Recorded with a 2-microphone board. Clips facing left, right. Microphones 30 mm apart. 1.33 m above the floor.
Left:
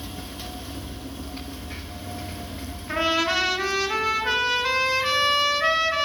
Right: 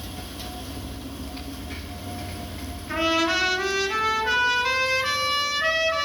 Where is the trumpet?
15° left (ahead or behind), 1.1 m.